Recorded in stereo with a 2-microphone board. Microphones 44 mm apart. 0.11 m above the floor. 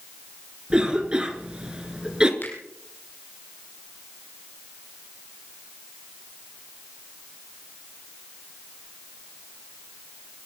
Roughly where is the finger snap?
Left.